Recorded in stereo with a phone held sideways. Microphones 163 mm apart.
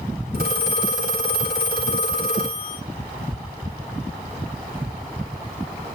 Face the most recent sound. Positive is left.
turn(degrees=-80)